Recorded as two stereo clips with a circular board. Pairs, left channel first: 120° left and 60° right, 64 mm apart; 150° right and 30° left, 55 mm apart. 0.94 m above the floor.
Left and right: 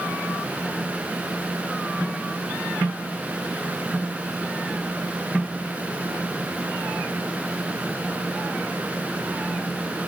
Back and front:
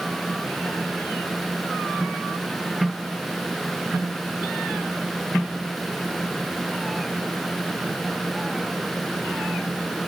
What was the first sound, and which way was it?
Only background noise.